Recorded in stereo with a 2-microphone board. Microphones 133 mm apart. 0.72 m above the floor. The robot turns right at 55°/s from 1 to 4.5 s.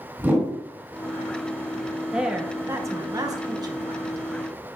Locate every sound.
0.2 s a whoosh: 15° right (ahead or behind), 2.5 m
2.1 s a woman speaking: 5° right (ahead or behind), 0.9 m; by 4.5 s 20° right (ahead or behind), 0.9 m